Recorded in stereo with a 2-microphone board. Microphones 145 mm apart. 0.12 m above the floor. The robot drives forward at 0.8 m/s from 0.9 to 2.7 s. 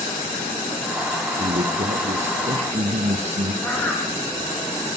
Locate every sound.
1.4 s a man speaking: 55° right (ahead or behind), 2 m; by 3.5 s 50° right (ahead or behind), 2 m
3.6 s a bird: 10° left (ahead or behind), 3 m